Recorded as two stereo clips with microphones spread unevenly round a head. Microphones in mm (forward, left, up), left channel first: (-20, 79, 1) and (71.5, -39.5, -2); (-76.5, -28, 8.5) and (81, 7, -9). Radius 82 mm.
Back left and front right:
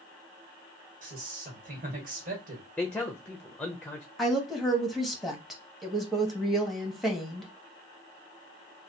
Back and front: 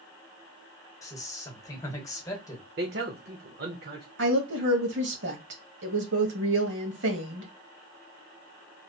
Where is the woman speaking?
35° left, 1.4 m.